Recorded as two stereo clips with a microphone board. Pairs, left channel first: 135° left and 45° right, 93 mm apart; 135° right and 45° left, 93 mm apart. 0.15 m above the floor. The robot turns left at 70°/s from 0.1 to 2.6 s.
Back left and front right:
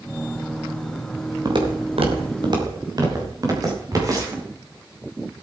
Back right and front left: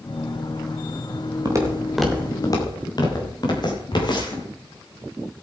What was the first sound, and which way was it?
Footsteps, 5° right.